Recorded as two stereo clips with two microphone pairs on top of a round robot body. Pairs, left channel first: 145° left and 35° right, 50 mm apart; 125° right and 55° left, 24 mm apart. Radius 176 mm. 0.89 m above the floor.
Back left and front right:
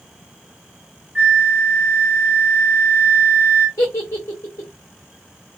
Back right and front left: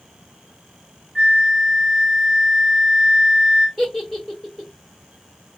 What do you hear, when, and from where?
1.1 s a flute: 15° left, 1.2 m
3.8 s a giggle: 120° left, 0.8 m